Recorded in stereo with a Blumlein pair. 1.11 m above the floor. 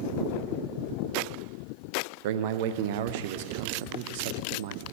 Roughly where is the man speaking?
Ahead right.